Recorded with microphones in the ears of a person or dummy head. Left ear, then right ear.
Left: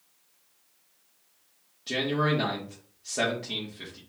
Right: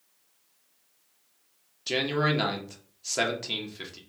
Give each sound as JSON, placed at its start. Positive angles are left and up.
{"t": 1.9, "sound": "a man speaking", "side_deg": -45, "distance_m": 1.4}